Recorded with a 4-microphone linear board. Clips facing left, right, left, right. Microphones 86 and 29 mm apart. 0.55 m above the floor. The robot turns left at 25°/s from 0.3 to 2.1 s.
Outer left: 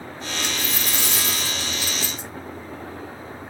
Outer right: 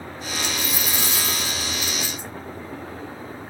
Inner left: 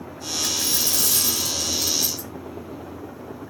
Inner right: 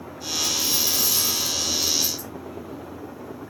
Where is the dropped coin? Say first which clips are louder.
Outer right 1 dB, even; 130° left, 3 m; by 2.3 s 90° left, 3 m.